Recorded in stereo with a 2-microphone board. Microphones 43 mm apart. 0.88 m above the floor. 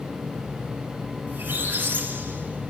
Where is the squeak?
50° right (ahead or behind), 3.5 m.